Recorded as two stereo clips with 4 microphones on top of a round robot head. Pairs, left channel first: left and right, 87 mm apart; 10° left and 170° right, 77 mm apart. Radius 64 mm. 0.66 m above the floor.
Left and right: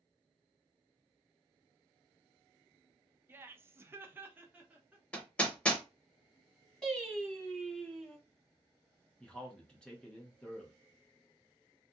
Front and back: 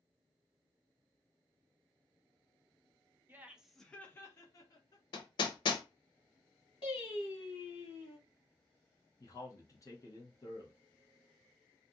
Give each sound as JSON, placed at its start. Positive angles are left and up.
{"t": 3.3, "sound": "laughter", "azimuth_deg": -135, "distance_m": 0.6}
{"t": 5.1, "sound": "hammering", "azimuth_deg": 15, "distance_m": 0.6}
{"t": 6.8, "sound": "singing", "azimuth_deg": 10, "distance_m": 1.1}
{"t": 9.2, "sound": "a man speaking", "azimuth_deg": 15, "distance_m": 1.1}